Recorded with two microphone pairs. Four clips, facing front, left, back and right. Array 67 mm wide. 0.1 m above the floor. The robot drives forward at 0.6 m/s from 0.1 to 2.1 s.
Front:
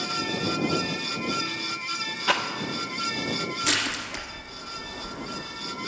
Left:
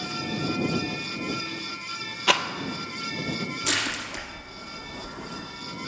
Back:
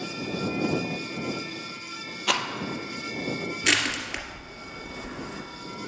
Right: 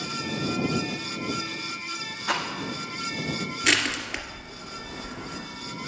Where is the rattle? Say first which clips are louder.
Left 4 dB, front 2 dB; 95° left, 0.8 m.